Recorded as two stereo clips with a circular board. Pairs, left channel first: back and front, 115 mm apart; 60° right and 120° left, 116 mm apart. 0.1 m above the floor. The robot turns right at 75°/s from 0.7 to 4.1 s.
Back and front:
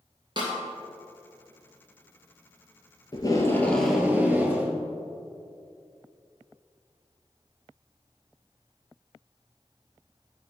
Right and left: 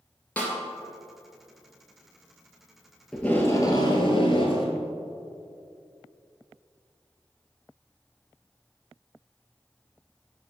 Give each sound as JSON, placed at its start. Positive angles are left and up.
{"t": 0.4, "sound": "a snare drum", "azimuth_deg": 10, "distance_m": 1.9}
{"t": 3.1, "sound": "tape being pulled", "azimuth_deg": -145, "distance_m": 1.3}